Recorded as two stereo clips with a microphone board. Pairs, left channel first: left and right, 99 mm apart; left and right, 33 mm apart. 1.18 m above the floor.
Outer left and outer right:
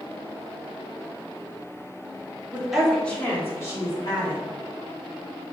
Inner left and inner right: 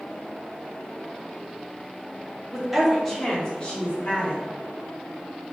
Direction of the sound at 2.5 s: 10° right (ahead or behind).